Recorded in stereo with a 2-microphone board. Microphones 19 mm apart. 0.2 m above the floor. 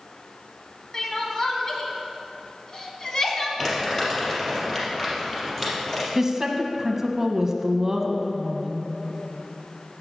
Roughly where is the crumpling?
Left.